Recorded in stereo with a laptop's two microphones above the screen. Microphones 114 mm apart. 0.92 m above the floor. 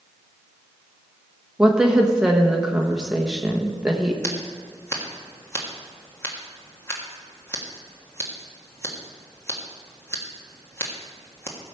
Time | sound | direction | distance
1.6 | a woman speaking | 5° right (ahead or behind) | 1.1 m
4.2 | scissors | 25° left (ahead or behind) | 1.5 m